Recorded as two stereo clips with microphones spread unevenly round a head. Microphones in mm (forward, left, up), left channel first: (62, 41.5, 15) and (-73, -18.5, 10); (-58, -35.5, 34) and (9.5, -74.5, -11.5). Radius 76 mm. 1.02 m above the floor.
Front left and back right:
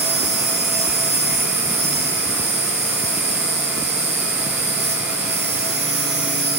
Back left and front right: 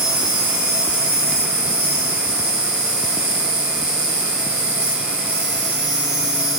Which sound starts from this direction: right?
An insect, at 0.0 s.